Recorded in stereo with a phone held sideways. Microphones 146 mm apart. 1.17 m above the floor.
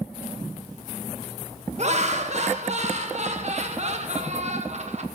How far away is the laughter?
About 1.3 m.